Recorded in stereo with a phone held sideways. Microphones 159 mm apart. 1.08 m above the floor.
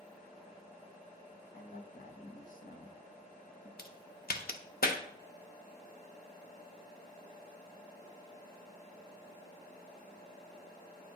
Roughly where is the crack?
Left.